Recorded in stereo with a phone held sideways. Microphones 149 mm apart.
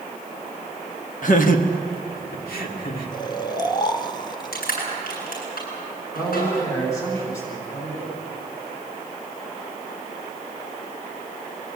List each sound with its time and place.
1.2 s laughter: 60° left (ahead or behind), 1.8 m; by 3.1 s 85° left, 3 m
3.1 s snoring: 30° left (ahead or behind), 1.0 m
4.5 s crushing: 80° left, 9 m
6.2 s a man speaking: 20° left (ahead or behind), 9.5 m